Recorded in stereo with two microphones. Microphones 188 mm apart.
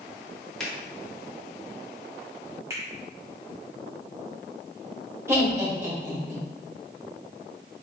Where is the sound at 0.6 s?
5° left (ahead or behind), 1.1 m.